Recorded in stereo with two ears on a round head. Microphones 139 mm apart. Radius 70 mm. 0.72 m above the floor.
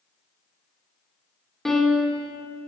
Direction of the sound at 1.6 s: 5° left (ahead or behind).